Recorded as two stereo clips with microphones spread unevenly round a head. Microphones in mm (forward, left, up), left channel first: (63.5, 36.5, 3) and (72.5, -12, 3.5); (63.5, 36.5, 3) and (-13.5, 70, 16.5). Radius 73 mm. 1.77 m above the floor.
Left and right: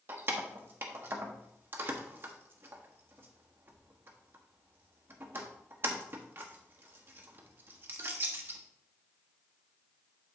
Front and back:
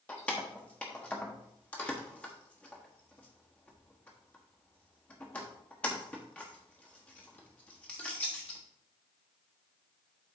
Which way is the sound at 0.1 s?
105° right.